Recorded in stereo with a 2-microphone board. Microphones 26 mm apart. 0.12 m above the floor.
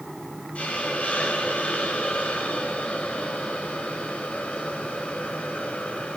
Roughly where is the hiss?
Left.